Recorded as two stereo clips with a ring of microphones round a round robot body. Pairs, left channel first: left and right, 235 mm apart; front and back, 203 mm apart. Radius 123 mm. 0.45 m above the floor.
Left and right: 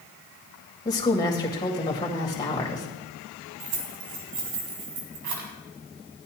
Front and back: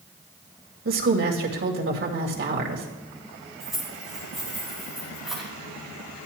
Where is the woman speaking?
165° left, 2.5 m.